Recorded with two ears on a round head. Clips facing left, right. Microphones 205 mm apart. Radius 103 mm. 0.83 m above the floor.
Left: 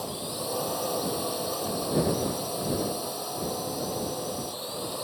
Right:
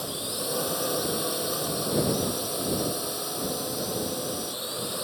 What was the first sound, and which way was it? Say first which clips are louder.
A drone: even; 20° right (ahead or behind).